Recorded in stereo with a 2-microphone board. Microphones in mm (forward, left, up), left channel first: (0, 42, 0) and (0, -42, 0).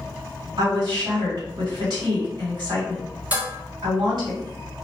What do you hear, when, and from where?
0.6 s a woman speaking: 60° right (ahead or behind), 1.7 m
3.3 s dishes clattering: 15° right (ahead or behind), 0.9 m